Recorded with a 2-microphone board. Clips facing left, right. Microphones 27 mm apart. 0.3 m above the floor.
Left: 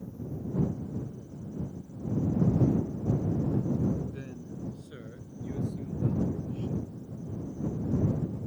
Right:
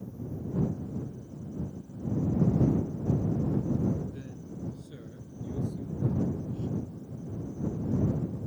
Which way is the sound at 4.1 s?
45° left (ahead or behind).